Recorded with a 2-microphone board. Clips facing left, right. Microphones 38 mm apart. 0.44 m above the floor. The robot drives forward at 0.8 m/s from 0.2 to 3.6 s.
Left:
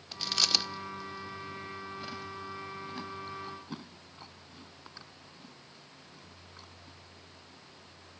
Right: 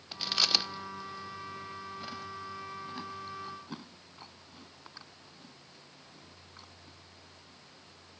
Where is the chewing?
10° right (ahead or behind); by 7.0 s centre (ahead or behind).